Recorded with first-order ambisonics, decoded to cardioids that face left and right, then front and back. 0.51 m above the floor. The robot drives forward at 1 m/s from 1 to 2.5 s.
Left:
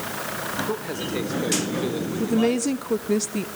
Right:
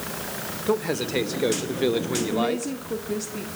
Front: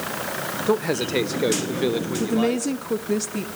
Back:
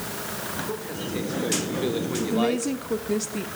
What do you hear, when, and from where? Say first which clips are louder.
0.7 s a man speaking: right 3 dB, front 9 dB; 25° right, 1.8 m; by 2.7 s 120° right, 1.3 m
2.2 s a woman speaking: left 2 dB, front 1 dB; 50° left, 1.3 m; by 3.5 s 75° left, 1.2 m